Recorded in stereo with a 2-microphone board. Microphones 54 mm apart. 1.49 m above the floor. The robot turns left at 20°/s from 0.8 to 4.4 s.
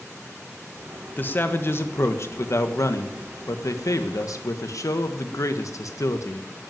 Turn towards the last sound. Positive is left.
turn(degrees=80)